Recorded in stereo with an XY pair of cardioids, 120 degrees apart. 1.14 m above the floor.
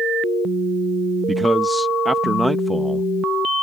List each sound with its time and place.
1.3 s a man speaking: 5° right